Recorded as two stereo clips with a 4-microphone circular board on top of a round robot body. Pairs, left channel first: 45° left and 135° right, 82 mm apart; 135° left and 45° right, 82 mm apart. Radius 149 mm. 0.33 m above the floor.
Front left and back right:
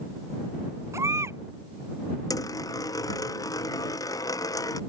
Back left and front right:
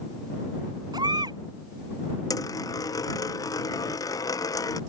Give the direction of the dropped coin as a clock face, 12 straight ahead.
9 o'clock.